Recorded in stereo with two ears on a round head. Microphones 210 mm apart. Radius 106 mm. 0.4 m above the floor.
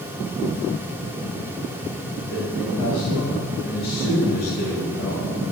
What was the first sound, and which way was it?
A man speaking, 60° left (ahead or behind).